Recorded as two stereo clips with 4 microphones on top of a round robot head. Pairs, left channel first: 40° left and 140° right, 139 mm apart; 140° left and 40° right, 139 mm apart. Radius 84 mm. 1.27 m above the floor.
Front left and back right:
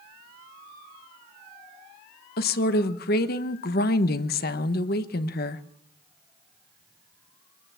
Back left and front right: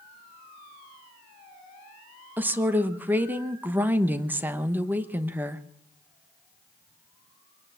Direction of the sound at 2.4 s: 40° left.